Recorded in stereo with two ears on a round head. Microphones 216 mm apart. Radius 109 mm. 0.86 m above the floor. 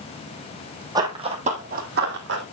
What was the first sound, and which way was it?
Running footsteps, 15° right (ahead or behind).